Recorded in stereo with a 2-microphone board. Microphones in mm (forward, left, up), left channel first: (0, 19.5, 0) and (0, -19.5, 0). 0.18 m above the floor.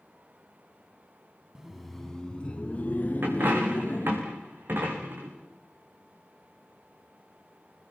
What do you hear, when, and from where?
1.6 s laughter: 15° right (ahead or behind), 1.1 m; by 4.2 s 50° left (ahead or behind), 3 m
3.2 s a dropped coin: 60° right (ahead or behind), 5.5 m